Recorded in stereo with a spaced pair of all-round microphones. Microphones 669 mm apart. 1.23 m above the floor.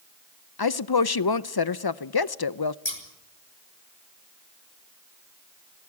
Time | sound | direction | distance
0.6 | a woman speaking | 35° left (ahead or behind) | 0.6 m
2.9 | scissors | 40° left (ahead or behind) | 4.5 m